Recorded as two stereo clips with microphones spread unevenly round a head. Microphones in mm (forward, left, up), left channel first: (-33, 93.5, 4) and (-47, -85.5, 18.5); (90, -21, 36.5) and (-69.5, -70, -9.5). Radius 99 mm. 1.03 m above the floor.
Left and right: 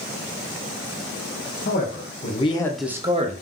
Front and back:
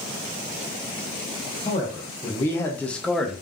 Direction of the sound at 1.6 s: 100° left.